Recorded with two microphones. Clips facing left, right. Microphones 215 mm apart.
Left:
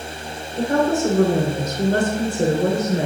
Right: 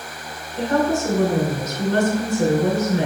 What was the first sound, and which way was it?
A woman speaking, 50° left (ahead or behind).